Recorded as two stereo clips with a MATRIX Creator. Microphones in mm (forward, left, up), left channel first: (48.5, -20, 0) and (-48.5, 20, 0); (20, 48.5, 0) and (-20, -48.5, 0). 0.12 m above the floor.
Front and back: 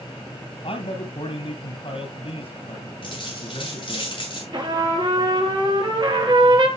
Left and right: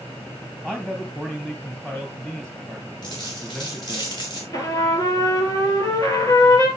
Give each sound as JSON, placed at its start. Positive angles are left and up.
{"t": 0.6, "sound": "a man speaking", "azimuth_deg": -15, "distance_m": 3.0}
{"t": 3.0, "sound": "a dropped coin", "azimuth_deg": 20, "distance_m": 6.0}
{"t": 4.5, "sound": "a trumpet", "azimuth_deg": 120, "distance_m": 3.0}